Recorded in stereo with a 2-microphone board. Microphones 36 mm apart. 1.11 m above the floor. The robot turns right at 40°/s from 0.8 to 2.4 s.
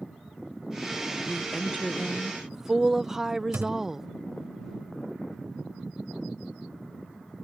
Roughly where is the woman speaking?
Behind left.